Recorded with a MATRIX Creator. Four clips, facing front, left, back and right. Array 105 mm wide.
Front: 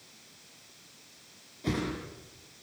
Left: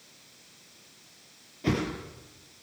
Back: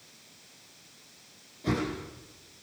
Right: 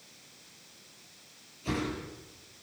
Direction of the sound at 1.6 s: 85° left.